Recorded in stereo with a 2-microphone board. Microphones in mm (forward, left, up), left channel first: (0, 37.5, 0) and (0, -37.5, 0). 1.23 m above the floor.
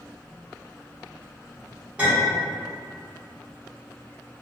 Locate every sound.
2.0 s a clink: 15° right (ahead or behind), 1.3 m